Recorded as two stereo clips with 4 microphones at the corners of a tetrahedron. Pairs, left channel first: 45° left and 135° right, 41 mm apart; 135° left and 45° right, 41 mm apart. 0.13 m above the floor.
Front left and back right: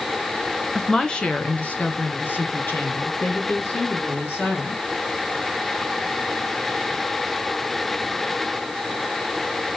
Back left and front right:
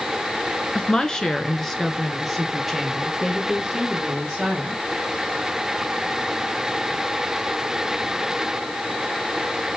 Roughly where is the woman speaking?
Left.